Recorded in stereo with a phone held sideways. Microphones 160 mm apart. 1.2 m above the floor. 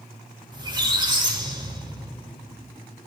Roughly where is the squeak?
Right.